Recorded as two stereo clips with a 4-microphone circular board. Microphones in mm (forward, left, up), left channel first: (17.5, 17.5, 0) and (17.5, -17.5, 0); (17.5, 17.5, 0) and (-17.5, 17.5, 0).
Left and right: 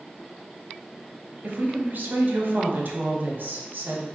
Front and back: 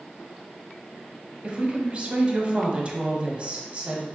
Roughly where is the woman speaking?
Behind right.